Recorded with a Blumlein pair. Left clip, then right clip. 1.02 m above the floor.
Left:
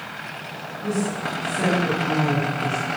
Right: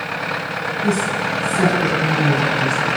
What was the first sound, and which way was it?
A woman speaking, 70° right.